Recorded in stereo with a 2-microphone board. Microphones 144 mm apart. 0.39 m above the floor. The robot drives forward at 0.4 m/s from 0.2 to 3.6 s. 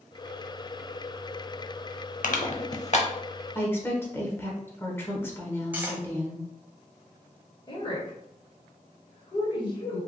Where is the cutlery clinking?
10° right (ahead or behind), 1.2 m.